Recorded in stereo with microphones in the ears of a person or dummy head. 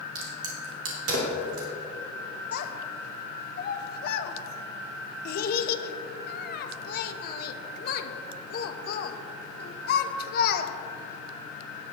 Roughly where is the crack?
Right.